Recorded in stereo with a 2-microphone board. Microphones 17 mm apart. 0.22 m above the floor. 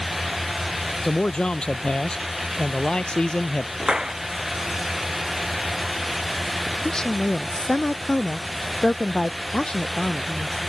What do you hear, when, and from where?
1.0 s a man speaking: 75° left (ahead or behind)
3.8 s a clap: 55° right (ahead or behind)
6.7 s a woman speaking: 55° left (ahead or behind)